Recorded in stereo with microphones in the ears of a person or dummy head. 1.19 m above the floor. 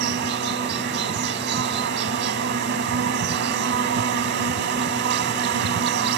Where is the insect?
55° right (ahead or behind).